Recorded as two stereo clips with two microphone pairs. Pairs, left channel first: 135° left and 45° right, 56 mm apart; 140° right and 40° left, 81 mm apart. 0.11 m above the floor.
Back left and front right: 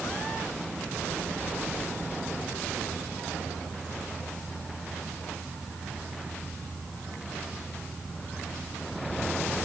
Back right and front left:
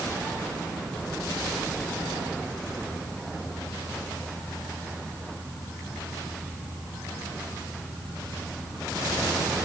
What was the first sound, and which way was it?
Only background noise.